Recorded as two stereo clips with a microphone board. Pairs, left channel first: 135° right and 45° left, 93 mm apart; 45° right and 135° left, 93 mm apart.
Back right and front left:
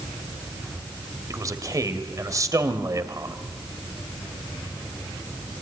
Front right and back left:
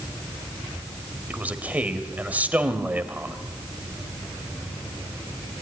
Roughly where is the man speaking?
Left.